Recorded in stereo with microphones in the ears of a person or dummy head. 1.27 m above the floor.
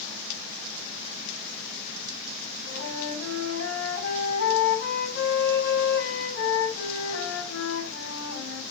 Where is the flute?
60° left (ahead or behind), 10 m.